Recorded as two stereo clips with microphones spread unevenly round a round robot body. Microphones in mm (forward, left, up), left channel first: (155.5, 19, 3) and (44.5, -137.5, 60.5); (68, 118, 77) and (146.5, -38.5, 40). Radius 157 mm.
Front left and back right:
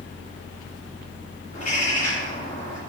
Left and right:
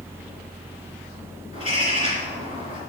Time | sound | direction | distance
1.5 | a bird | 70° left | 3 m